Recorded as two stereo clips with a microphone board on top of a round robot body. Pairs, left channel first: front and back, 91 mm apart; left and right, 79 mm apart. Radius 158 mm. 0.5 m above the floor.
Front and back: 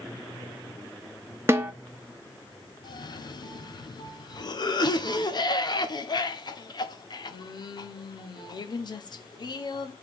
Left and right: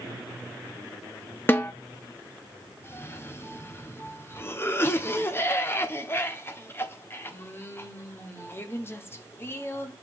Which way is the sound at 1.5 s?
135° left.